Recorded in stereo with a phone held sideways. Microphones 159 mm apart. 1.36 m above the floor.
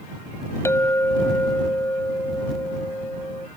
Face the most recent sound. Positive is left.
turn(degrees=15)  # may be behind; listen again after turning